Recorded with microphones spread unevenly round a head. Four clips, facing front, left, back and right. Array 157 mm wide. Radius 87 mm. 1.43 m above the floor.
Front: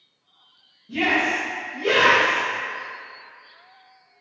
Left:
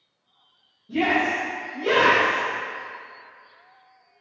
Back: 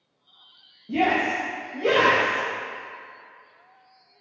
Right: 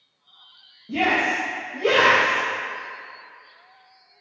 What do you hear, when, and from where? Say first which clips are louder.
0.9 s a shout: even, back 1 dB; 150° right, 2.5 m; by 2.5 s 135° right, 3.5 m